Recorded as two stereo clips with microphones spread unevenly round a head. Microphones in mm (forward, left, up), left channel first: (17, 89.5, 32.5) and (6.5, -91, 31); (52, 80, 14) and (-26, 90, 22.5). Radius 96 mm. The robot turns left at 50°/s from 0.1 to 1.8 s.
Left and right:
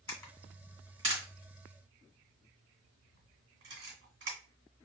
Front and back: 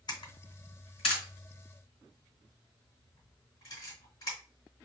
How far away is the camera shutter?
About 2 m.